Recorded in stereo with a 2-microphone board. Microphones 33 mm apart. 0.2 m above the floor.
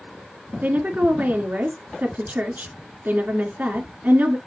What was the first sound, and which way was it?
A woman speaking, 60° right (ahead or behind).